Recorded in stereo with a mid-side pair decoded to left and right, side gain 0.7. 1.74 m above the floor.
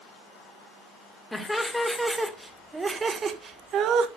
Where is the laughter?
5° left, 2 m; by 4.1 s 60° right, 1.3 m.